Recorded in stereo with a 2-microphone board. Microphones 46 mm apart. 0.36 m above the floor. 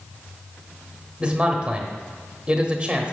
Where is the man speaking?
25° right (ahead or behind), 1.2 m.